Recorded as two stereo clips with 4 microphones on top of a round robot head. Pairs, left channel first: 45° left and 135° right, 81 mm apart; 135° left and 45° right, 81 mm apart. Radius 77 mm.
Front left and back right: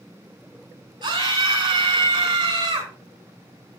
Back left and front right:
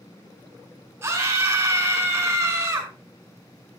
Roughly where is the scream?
Right.